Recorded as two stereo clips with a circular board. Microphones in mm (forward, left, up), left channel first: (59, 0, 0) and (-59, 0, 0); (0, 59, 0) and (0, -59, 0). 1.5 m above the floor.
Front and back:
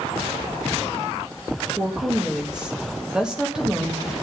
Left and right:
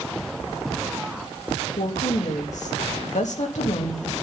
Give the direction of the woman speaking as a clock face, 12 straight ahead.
9 o'clock.